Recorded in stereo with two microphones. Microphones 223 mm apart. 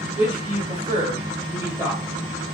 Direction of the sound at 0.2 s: 45° right (ahead or behind).